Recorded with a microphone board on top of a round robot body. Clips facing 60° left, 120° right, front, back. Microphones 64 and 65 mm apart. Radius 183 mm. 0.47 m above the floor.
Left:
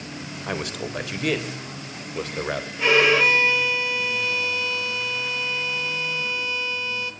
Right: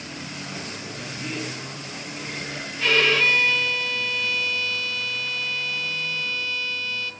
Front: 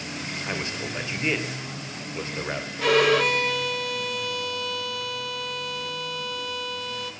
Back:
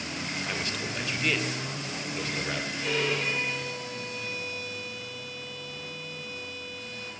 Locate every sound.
0.5 s a man speaking: 65° left, 3 m
2.8 s a violin: 10° right, 1.8 m